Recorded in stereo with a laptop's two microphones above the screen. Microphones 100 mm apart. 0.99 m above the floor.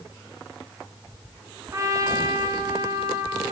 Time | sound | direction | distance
1.7 | a trumpet | 30° right (ahead or behind) | 0.5 m